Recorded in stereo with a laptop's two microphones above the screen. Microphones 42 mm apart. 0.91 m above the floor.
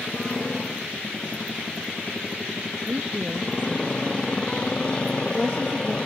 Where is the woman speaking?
30° right (ahead or behind).